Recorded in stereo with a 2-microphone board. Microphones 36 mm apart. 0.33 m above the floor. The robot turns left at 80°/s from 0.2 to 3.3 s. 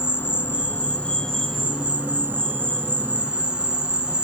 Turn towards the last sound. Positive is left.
turn(degrees=-145)